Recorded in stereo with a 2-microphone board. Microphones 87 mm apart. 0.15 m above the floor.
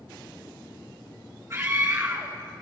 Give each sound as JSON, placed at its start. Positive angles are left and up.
{"t": 1.5, "sound": "a scream", "side_deg": -40, "distance_m": 2.5}